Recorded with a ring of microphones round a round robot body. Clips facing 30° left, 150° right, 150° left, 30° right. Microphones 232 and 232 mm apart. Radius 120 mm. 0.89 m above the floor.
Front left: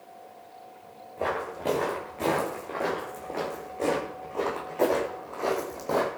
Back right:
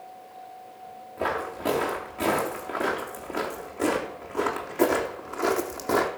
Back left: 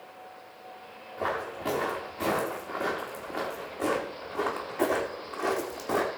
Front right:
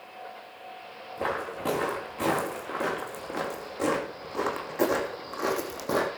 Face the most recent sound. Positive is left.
turn(degrees=-85)